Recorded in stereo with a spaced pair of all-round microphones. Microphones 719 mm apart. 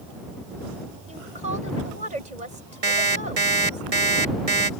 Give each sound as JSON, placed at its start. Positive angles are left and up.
{"t": 1.1, "sound": "a woman speaking", "side_deg": -65}
{"t": 2.8, "sound": "an alarm clock", "side_deg": -50}